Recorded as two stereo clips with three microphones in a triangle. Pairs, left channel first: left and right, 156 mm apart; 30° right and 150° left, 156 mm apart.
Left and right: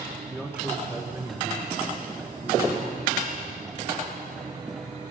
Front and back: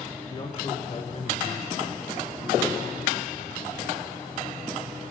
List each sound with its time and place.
0.3 s a man speaking: 5° right, 1.3 m; by 3.9 s 35° right, 4 m